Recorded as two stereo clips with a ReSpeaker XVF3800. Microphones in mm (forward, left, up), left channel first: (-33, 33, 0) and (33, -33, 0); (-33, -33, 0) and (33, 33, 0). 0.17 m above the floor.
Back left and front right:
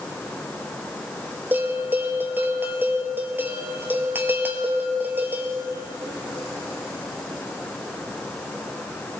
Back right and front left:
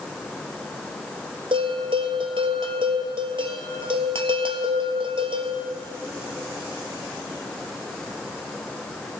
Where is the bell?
25° left, 1.0 m.